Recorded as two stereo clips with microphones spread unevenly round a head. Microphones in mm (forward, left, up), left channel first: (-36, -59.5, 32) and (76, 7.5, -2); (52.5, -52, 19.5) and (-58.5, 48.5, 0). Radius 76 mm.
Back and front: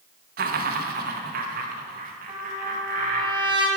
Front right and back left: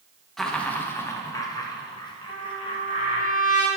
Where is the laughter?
45° left, 1.0 m; by 3.3 s 15° left, 2.5 m.